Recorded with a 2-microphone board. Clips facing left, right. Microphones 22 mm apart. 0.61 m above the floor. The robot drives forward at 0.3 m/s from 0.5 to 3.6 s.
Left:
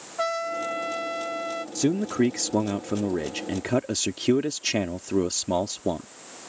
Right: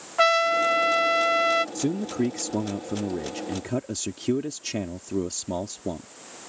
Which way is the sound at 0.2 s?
45° right (ahead or behind).